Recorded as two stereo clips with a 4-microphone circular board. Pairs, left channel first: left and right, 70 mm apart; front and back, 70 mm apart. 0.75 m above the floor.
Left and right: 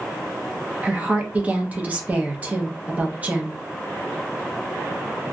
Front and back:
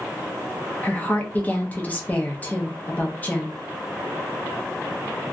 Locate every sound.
0.8 s a woman speaking: 45° right, 0.7 m